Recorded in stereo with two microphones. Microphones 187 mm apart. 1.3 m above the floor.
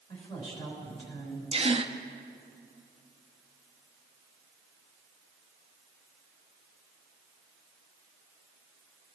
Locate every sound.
0.1 s a woman speaking: 35° left (ahead or behind), 6 m
1.5 s a gasp: 30° right (ahead or behind), 0.7 m